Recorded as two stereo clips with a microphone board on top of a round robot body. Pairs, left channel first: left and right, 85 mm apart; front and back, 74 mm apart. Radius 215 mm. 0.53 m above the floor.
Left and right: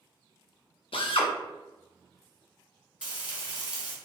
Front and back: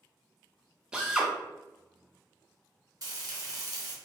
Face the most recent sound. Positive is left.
turn(degrees=-165)